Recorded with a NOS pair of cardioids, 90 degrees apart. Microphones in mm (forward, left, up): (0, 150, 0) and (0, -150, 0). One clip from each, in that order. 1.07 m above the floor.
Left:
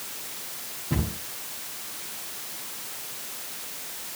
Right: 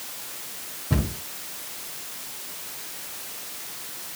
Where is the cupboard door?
35° right, 6.5 m.